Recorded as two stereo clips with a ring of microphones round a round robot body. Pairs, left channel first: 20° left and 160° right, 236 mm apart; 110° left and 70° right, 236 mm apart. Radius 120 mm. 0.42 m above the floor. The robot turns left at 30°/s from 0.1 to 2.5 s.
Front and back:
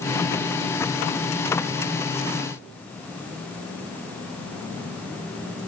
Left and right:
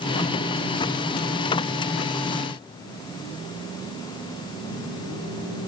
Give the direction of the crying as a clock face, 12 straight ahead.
No crying in this recording.